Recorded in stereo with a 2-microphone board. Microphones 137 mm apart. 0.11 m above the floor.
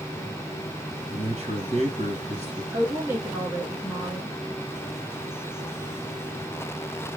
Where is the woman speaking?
20° right (ahead or behind), 1.6 m.